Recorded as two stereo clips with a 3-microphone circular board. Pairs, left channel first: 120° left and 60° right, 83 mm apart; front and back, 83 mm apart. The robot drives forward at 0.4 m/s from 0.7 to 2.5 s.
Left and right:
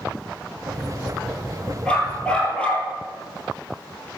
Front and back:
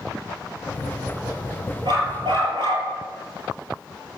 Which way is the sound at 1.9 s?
160° right.